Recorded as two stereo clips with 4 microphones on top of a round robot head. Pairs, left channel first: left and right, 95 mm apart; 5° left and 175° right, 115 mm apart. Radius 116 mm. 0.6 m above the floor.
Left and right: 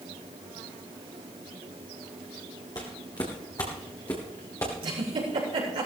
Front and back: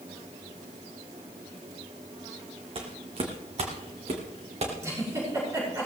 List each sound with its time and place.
2.8 s footsteps: 150° left, 2 m; by 4.7 s 160° left, 3 m
4.8 s a giggle: 110° right, 6.5 m